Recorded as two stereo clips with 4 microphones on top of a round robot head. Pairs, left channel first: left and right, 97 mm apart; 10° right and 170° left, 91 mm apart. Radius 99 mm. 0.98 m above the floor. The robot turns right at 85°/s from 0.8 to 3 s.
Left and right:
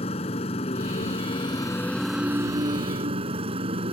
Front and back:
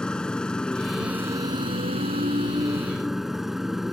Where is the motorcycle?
70° left; by 3.9 s 105° right.